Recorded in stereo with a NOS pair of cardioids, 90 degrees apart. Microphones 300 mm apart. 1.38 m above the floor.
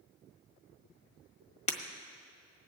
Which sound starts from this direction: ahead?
Breaking glass, at 1.7 s.